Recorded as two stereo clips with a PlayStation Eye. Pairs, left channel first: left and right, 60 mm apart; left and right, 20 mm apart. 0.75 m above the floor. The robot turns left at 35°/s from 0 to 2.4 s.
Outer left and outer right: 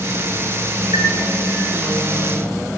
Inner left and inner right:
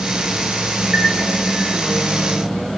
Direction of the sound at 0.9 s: 70° right (ahead or behind).